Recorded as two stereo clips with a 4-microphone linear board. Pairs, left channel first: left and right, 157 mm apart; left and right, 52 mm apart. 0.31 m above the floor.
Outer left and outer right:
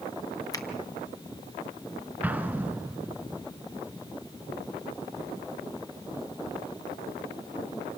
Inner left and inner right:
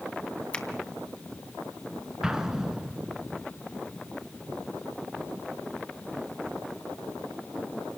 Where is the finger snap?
25° left (ahead or behind), 2.5 m.